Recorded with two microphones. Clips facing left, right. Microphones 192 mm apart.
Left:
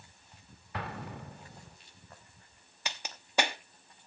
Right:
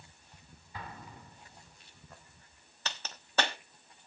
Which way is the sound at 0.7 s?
75° left (ahead or behind).